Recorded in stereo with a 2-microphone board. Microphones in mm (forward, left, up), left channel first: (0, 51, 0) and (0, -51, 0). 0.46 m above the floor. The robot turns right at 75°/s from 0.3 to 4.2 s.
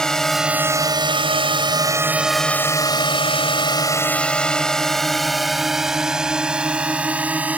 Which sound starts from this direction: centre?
A drone, at 0.0 s.